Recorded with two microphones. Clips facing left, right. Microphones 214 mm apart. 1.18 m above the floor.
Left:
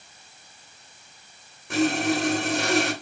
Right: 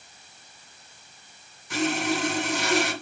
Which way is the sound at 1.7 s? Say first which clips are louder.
Left 4 dB; 60° left (ahead or behind).